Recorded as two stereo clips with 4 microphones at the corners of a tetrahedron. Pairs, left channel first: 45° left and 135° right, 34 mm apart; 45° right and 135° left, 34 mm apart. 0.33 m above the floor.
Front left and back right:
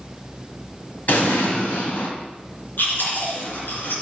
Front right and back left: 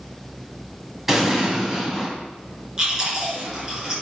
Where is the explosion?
55° left, 2.5 m.